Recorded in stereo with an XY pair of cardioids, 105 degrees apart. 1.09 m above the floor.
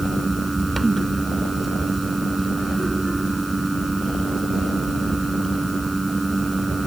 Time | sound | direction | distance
0.0 | a fan | 20° right | ?